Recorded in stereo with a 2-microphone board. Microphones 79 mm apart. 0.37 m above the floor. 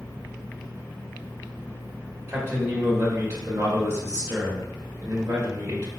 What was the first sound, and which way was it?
A man speaking, 25° right (ahead or behind).